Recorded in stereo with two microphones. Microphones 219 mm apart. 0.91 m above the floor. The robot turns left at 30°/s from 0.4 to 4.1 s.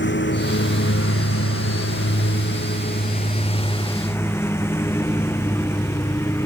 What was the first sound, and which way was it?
A lawn mower, 60° left (ahead or behind).